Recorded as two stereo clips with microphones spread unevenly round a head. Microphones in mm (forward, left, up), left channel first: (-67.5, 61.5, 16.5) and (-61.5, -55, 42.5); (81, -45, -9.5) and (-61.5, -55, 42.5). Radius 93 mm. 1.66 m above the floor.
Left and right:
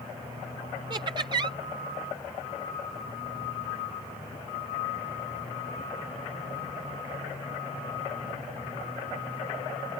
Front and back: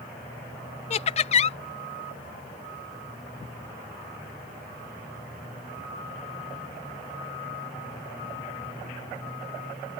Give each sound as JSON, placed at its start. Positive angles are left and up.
{"t": 0.9, "sound": "laughter", "azimuth_deg": -50}